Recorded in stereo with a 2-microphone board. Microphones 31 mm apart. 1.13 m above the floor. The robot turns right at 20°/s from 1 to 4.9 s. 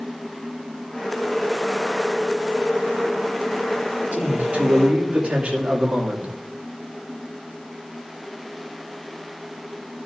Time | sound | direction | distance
4.1 | a man speaking | 55° right (ahead or behind) | 3 m